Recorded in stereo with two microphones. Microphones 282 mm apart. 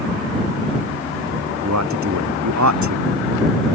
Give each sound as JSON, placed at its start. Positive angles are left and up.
{"t": 1.6, "sound": "a man speaking", "side_deg": -75}